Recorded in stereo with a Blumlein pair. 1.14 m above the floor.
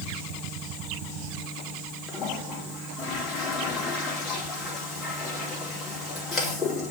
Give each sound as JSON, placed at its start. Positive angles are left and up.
{"t": 2.1, "sound": "a toilet flushing", "azimuth_deg": 25, "distance_m": 2.0}